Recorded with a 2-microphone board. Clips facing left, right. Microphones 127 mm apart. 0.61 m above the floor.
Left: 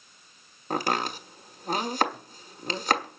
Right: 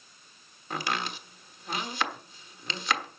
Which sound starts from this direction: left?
Chopping, at 0.7 s.